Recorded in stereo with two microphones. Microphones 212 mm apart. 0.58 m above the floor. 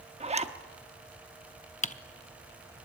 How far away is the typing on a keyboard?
About 0.7 m.